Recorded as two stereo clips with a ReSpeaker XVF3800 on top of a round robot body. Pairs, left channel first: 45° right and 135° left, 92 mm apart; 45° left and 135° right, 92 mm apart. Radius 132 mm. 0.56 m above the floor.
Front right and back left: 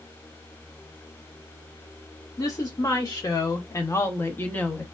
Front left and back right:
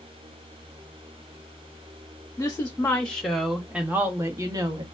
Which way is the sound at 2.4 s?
15° right.